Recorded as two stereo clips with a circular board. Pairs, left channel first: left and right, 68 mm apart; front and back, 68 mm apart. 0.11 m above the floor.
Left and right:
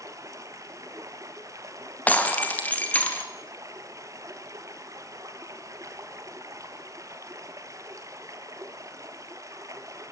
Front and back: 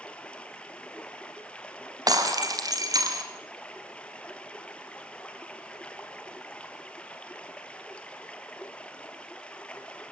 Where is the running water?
70° right, 2 m.